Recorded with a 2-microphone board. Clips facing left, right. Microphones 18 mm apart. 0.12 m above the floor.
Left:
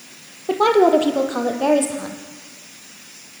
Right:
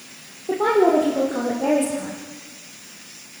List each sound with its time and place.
0.5 s a woman speaking: 60° left (ahead or behind), 2.5 m; by 2.2 s 50° left (ahead or behind), 3.5 m